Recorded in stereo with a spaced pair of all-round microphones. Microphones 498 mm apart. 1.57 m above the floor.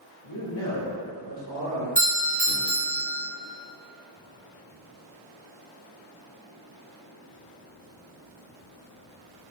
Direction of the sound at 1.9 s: 65° left (ahead or behind).